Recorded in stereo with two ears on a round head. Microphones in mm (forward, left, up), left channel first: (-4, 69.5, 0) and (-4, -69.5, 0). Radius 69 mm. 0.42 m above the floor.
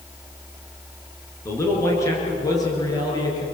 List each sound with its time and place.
1.4 s a man speaking: 15° left (ahead or behind), 7.5 m; by 3.4 s 25° left (ahead or behind), 9.5 m